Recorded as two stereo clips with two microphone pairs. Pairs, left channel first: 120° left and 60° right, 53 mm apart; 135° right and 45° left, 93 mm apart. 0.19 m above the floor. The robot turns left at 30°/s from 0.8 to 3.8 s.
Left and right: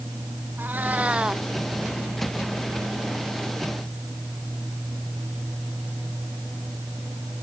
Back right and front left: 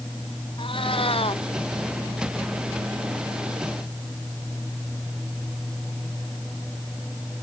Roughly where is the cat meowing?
Behind right.